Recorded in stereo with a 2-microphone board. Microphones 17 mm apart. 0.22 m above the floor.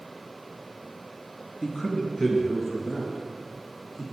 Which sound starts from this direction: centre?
A man speaking, at 1.6 s.